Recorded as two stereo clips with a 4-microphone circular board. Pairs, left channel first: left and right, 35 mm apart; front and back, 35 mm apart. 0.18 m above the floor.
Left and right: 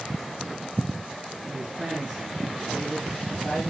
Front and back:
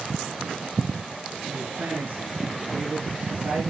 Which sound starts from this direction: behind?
A man speaking, at 1.5 s.